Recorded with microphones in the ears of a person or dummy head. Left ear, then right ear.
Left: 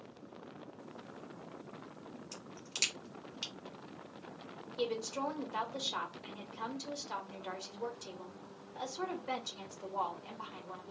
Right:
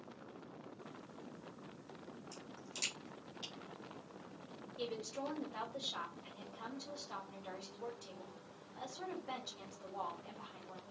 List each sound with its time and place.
2.3 s a crack: 80° left, 2 m
4.8 s a woman speaking: 75° left (ahead or behind), 1.6 m